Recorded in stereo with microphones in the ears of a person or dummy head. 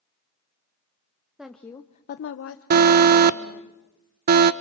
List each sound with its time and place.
1.4 s a woman speaking: 5° left (ahead or behind), 1.0 m; by 3.7 s 50° left (ahead or behind), 2 m
2.7 s an alarm: 60° right (ahead or behind), 0.6 m